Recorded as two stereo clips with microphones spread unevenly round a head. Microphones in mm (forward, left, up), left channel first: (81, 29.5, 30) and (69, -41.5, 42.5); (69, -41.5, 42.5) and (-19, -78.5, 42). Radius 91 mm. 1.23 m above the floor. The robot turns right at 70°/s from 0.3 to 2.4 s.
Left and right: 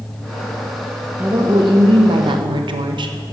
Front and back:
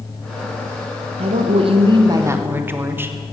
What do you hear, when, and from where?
1.2 s a woman speaking: 175° right, 1.2 m; by 3.1 s 90° right, 1.2 m